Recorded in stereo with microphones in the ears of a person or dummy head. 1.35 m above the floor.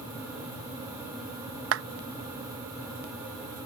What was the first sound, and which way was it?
A clap, 70° right (ahead or behind).